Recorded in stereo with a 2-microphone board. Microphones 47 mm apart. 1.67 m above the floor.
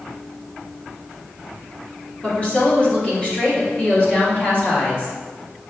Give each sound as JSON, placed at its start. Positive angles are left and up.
{"t": 2.2, "sound": "a woman speaking", "side_deg": 30, "distance_m": 2.5}